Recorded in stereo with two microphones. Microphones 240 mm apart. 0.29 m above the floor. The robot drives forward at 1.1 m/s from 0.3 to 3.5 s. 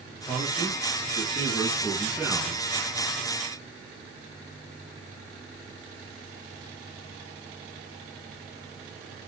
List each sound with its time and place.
0.3 s a man speaking: 5° right (ahead or behind), 5 m; by 2.6 s 10° right (ahead or behind), 2.5 m